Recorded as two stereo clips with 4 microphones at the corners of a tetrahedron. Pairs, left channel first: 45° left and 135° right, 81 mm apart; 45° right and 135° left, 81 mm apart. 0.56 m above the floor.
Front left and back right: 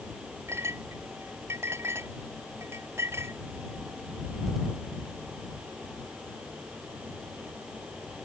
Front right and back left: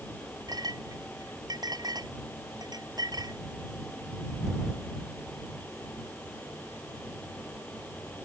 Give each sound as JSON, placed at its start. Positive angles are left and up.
{"t": 0.5, "sound": "a clink", "azimuth_deg": 170}